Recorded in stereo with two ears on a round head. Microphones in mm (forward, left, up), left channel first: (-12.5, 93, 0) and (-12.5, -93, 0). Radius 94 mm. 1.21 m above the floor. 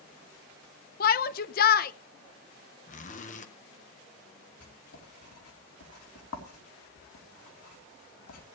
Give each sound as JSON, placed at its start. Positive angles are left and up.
{"t": 1.0, "sound": "a shout", "side_deg": 45, "distance_m": 0.7}
{"t": 2.9, "sound": "a zipper", "side_deg": 40, "distance_m": 1.2}
{"t": 4.6, "sound": "writing", "side_deg": 85, "distance_m": 3.0}